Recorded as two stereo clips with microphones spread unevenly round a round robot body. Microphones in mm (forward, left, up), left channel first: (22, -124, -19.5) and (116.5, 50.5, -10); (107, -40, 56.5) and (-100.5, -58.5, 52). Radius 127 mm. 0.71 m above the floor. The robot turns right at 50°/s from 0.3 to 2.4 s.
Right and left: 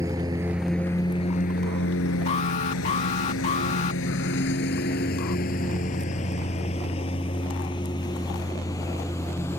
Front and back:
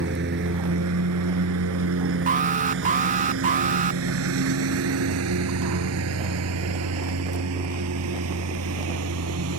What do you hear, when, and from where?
0.0 s a lawn mower: 140° left; by 9.6 s 160° left
2.3 s an alarm: 160° right; by 4.0 s 155° right